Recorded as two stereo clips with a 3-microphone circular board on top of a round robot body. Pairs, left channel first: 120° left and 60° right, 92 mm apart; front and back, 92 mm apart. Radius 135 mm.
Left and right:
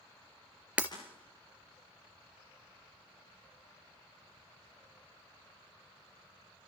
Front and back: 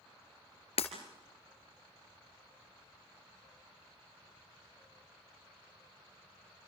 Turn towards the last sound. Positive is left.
turn(degrees=15)